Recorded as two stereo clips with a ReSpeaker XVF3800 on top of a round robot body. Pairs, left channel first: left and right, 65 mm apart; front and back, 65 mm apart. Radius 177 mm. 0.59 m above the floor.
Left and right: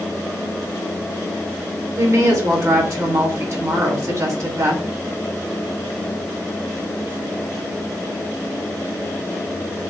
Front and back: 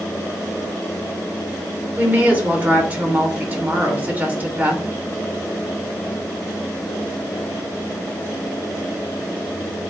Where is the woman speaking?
115° right, 2.5 m.